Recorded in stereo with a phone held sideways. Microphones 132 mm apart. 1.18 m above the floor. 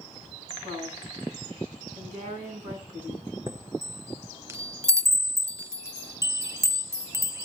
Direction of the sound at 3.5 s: 20° right (ahead or behind).